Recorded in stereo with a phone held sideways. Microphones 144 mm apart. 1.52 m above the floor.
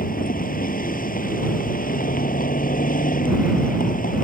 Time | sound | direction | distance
0.0 | a vehicle | 80° left | ?